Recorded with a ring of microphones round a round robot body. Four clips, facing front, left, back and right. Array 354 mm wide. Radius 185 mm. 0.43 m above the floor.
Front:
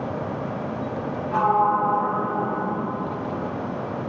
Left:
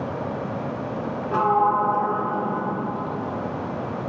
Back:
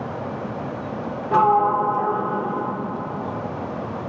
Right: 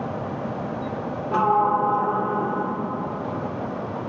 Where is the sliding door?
175° right, 1.1 m.